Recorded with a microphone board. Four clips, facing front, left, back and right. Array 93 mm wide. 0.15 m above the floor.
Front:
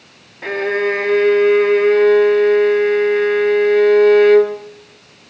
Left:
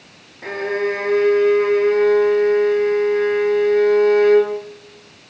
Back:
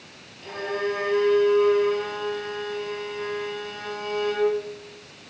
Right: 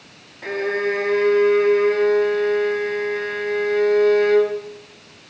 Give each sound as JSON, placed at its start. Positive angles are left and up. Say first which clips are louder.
{"t": 0.4, "sound": "a violin", "louder": "left 1 dB, front 10 dB", "azimuth_deg": 0, "distance_m": 3.5}